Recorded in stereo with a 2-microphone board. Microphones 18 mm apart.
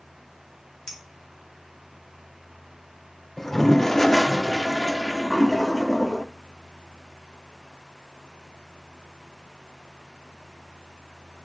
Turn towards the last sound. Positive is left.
turn(degrees=15)  # may be behind; listen again after turning